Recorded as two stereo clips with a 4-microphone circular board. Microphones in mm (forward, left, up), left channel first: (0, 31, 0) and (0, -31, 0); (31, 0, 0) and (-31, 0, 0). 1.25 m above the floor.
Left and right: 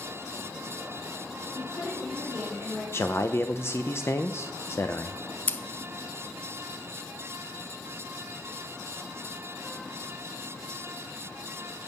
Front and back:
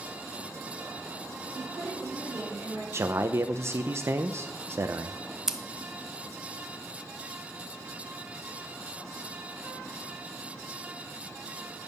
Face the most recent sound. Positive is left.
turn(degrees=105)